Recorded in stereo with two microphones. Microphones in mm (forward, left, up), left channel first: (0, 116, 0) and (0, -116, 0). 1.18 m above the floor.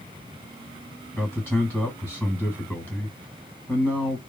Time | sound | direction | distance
1.2 | a man speaking | 5° left (ahead or behind) | 1.6 m